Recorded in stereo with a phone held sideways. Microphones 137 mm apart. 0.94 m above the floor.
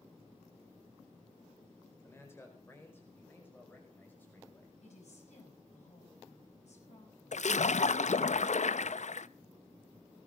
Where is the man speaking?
20° left (ahead or behind), 4.5 m; by 4.7 s 15° left (ahead or behind), 6.5 m.